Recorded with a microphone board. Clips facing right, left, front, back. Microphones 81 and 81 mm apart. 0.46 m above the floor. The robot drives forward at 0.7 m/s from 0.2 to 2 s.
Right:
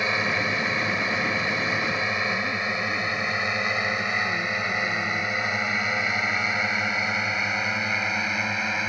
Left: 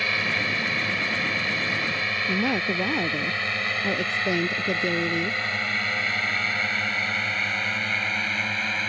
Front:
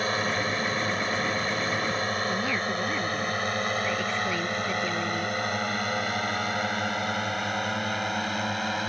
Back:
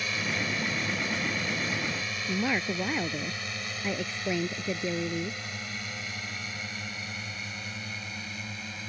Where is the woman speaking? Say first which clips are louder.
Left 2 dB, front 1 dB; 105° left.